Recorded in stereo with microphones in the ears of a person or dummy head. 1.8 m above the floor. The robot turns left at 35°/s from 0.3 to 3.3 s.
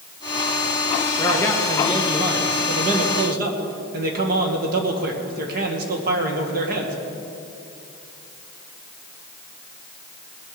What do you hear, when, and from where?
1.2 s a man speaking: 15° left, 2 m; by 7.0 s 60° right, 2 m